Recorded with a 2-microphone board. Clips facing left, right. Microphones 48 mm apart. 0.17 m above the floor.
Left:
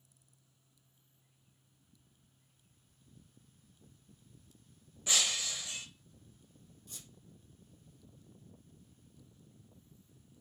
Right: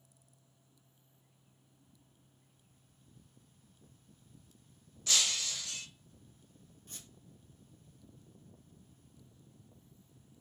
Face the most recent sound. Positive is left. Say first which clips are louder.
# right 1 dB
turn(degrees=-45)  # may be behind; listen again after turning